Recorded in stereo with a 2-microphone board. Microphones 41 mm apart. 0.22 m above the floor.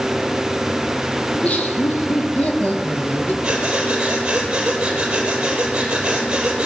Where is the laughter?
40° left (ahead or behind), 8 m; by 3.3 s 35° left (ahead or behind), 7 m.